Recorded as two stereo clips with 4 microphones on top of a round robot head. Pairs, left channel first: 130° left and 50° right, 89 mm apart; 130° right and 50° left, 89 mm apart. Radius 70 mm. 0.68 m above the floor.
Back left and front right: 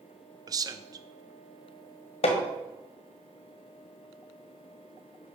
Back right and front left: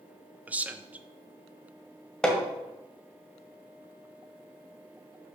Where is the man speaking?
20° right, 0.9 m.